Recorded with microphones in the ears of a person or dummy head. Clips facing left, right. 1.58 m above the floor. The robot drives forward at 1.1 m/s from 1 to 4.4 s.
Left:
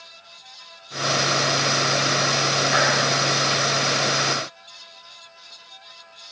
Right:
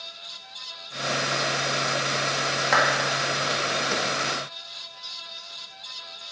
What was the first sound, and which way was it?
A clap, 85° right.